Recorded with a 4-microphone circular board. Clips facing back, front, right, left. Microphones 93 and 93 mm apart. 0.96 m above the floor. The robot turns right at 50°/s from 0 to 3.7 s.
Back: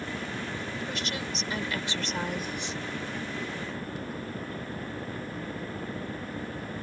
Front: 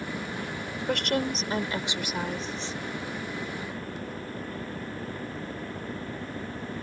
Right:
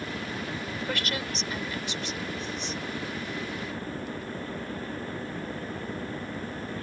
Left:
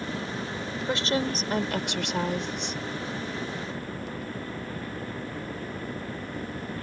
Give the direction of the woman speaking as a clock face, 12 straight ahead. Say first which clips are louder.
Front 7 dB, left 8 dB; 11 o'clock.